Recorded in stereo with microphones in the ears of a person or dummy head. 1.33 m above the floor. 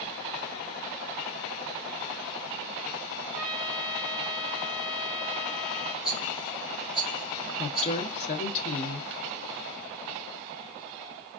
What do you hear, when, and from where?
3.3 s a trumpet: 5° left (ahead or behind), 3 m
6.0 s a rattle: 35° right (ahead or behind), 2 m
7.6 s a woman speaking: 35° left (ahead or behind), 1.0 m